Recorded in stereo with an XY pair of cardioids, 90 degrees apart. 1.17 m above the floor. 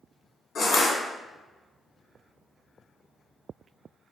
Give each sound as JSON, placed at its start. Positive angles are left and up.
{"t": 0.6, "sound": "crushing", "azimuth_deg": 70, "distance_m": 1.6}